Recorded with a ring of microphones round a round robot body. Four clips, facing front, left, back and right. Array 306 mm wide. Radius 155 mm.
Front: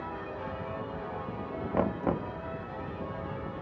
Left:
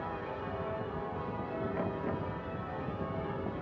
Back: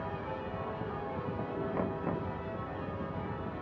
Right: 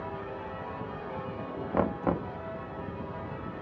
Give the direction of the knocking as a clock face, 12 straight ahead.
2 o'clock.